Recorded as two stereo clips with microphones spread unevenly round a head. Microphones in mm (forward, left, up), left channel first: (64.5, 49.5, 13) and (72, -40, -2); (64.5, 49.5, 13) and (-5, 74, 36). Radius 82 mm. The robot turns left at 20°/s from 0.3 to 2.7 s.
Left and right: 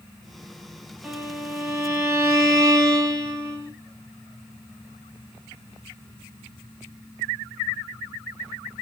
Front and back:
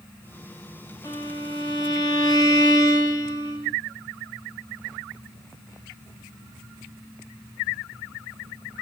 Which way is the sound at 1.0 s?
5° right.